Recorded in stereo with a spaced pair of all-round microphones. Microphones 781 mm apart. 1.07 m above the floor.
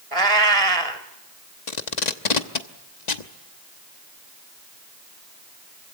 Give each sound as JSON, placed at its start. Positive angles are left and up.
{"t": 0.1, "sound": "a cat meowing", "side_deg": -45, "distance_m": 1.7}
{"t": 1.7, "sound": "tape being pulled", "side_deg": 65, "distance_m": 1.2}